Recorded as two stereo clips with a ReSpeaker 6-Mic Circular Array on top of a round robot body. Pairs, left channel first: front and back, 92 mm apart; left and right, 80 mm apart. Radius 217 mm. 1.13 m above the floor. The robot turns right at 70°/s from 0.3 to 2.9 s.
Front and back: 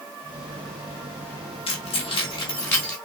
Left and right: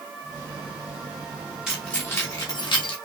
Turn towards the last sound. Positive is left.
turn(degrees=80)